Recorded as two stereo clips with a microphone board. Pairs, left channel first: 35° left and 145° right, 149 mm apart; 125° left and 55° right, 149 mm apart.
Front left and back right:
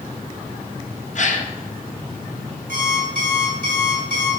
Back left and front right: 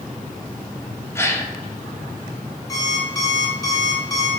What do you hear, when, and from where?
1.1 s a gasp: 55° left, 0.9 m
2.7 s an alarm clock: 170° right, 1.9 m